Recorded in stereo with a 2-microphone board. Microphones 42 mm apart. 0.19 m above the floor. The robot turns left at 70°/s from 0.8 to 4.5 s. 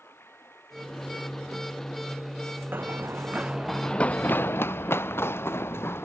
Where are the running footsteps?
55° right (ahead or behind); by 6.0 s 85° left.